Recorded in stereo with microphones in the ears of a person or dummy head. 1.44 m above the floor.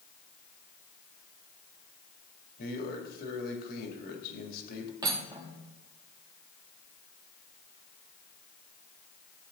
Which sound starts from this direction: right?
Cutlery clinking, at 5.0 s.